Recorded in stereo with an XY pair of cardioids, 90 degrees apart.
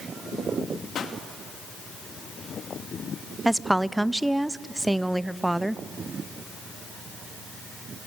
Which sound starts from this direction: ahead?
A woman speaking, at 3.5 s.